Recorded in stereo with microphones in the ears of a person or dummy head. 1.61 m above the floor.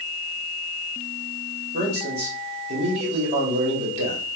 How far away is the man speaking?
About 1.4 m.